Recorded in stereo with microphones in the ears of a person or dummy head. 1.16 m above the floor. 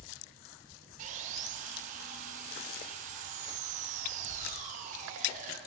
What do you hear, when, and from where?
1.0 s sawing: 45° right (ahead or behind), 1.2 m